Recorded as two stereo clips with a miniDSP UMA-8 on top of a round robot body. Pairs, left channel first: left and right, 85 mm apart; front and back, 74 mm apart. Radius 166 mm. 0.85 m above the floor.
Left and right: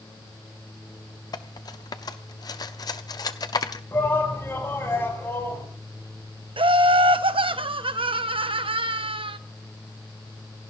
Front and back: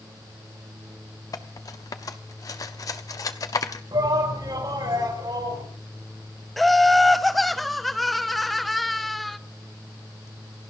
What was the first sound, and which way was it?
Cutlery clinking, 45° left.